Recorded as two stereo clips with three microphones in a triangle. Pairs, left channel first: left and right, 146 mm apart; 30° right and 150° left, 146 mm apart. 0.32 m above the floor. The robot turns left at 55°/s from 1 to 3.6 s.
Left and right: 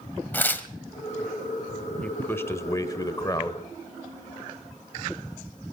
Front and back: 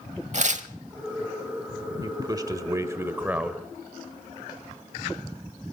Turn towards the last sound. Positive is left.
turn(degrees=75)